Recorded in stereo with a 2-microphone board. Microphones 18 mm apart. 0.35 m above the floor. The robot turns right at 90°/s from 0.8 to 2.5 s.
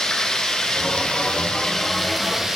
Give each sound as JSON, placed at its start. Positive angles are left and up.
{"t": 0.0, "sound": "running water", "azimuth_deg": 50, "distance_m": 1.8}